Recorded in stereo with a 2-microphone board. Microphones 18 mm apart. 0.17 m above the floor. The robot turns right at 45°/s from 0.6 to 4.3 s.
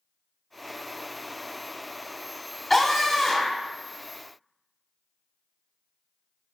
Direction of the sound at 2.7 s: 15° left (ahead or behind).